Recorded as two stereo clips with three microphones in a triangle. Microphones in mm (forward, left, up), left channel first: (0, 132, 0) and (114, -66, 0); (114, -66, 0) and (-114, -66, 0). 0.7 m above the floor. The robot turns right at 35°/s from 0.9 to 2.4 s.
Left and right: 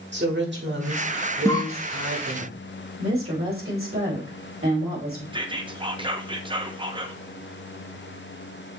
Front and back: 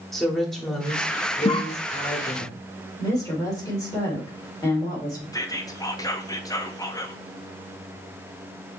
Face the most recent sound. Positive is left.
turn(degrees=-45)